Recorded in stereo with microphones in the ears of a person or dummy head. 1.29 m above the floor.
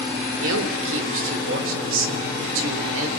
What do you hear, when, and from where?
0.4 s a man speaking: 80° right, 3.5 m